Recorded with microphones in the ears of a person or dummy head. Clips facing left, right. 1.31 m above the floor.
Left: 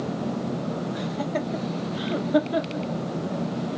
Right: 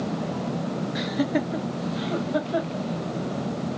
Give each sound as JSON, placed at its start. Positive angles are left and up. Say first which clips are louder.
{"t": 0.9, "sound": "laughter", "louder": "right 3 dB", "side_deg": -20, "distance_m": 1.2}